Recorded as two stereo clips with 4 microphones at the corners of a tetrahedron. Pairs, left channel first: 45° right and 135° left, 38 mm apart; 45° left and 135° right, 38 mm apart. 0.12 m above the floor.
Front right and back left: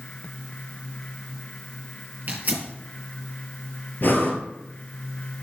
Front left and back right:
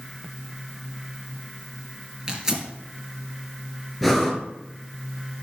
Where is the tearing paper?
160° left, 2.5 m.